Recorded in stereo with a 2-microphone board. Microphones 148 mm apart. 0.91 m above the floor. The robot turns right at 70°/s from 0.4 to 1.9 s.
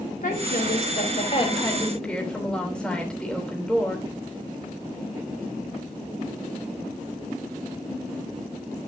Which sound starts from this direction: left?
A woman speaking, at 0.2 s.